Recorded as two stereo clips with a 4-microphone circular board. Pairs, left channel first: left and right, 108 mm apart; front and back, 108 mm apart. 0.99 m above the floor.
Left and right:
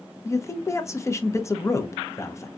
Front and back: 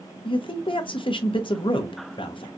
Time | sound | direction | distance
0.2 | a man speaking | 30° left | 0.5 m